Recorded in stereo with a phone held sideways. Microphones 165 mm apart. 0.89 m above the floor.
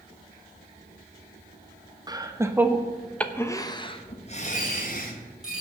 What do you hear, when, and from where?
2.1 s laughter: 25° right (ahead or behind), 1.2 m; by 5.2 s 60° left (ahead or behind), 1.4 m
4.4 s a dropped coin: 5° right (ahead or behind), 6.5 m